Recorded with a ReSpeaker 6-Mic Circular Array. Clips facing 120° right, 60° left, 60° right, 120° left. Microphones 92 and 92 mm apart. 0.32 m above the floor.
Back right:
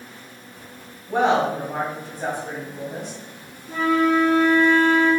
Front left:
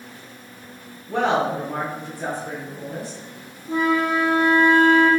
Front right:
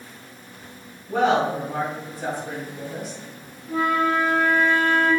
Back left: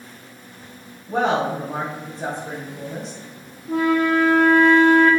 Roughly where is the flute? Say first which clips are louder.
Back right 1 dB, back left 3 dB; behind left.